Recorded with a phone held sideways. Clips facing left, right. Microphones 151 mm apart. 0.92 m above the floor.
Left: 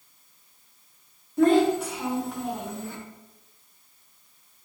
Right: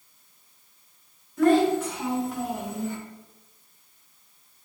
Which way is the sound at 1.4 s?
25° left (ahead or behind).